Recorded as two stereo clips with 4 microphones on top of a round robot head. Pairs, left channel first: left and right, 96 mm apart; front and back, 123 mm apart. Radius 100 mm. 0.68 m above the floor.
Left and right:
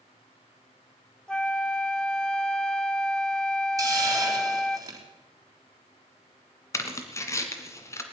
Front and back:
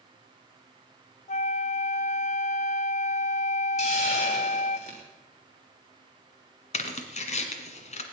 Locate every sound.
1.3 s a flute: 10° left, 0.8 m
3.8 s a hiss: 35° right, 4 m
6.7 s tearing paper: 30° left, 2.0 m